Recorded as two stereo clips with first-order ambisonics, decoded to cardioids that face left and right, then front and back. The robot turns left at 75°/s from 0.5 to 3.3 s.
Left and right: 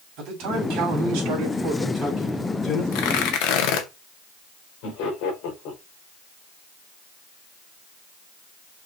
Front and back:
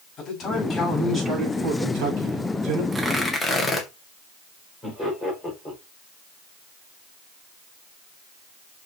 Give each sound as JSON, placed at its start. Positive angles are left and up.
{"t": 0.2, "sound": "a man speaking", "azimuth_deg": -60, "distance_m": 6.5}
{"t": 2.9, "sound": "tearing paper", "azimuth_deg": 105, "distance_m": 2.0}
{"t": 4.8, "sound": "laughter", "azimuth_deg": 80, "distance_m": 5.5}